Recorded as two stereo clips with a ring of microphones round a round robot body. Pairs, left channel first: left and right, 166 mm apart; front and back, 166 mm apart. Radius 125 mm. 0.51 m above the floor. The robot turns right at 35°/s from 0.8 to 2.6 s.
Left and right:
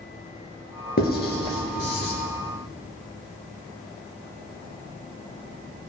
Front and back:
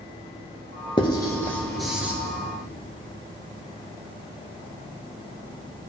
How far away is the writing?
About 3 m.